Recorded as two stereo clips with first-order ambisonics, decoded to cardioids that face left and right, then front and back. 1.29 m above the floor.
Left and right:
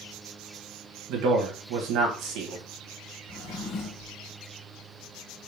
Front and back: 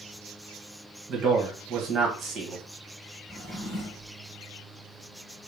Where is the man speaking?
115° right, 1.3 m.